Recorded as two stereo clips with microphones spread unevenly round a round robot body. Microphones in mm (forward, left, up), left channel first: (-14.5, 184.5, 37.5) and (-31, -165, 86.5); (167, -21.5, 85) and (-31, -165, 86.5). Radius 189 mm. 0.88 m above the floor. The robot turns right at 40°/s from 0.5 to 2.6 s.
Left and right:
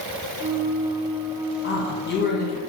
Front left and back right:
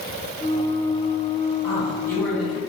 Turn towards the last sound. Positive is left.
turn(degrees=135)